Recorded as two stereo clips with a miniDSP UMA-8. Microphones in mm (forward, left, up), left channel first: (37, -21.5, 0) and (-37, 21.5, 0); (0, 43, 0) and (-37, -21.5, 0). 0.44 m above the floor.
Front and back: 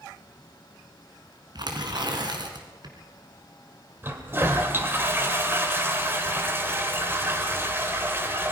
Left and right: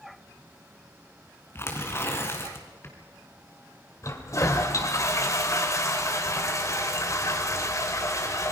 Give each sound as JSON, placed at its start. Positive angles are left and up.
{"t": 1.6, "sound": "tearing paper", "azimuth_deg": 115, "distance_m": 3.0}
{"t": 4.0, "sound": "a toilet flushing", "azimuth_deg": 90, "distance_m": 2.0}